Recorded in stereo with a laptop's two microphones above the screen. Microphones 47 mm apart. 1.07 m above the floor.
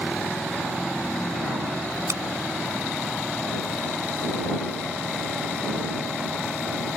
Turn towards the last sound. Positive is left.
turn(degrees=-80)